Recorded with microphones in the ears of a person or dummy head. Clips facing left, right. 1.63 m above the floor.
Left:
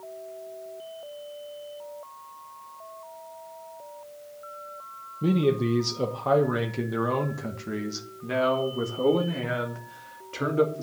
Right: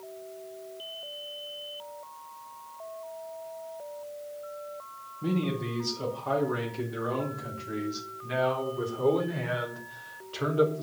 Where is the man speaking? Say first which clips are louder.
Left 7 dB; 50° left (ahead or behind), 1.5 m; by 10.8 s 35° left (ahead or behind), 3 m.